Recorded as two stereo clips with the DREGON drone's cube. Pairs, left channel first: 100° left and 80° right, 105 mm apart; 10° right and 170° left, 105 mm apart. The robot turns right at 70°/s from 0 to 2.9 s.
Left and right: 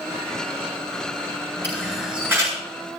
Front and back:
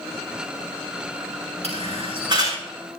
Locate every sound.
1.6 s a camera shutter: 170° left, 8 m; by 2.6 s 130° right, 8 m